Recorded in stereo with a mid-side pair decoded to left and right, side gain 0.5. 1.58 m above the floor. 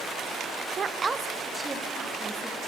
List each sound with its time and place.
0.8 s a woman speaking: 45° right, 0.6 m; by 2.6 s 10° right, 2.5 m